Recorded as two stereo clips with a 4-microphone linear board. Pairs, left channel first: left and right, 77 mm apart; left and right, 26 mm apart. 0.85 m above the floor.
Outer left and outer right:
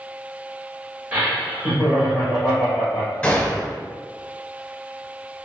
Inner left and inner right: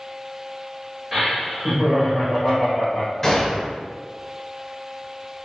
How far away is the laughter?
About 1.3 m.